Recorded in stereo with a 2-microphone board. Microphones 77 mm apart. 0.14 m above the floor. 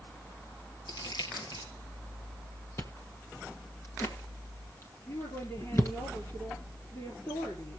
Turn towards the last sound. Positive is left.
turn(degrees=50)  # may be behind; listen again after turning